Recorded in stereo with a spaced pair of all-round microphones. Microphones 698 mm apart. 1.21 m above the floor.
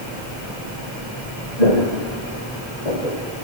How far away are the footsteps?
About 3 m.